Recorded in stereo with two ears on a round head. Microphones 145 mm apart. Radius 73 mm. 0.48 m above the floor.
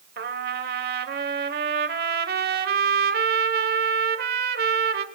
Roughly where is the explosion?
No explosion in this recording.